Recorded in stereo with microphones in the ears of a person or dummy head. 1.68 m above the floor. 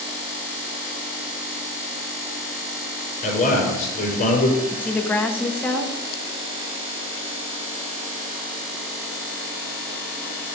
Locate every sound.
3.2 s a man speaking: 40° left (ahead or behind), 5.5 m
4.7 s a woman speaking: 5° left (ahead or behind), 0.9 m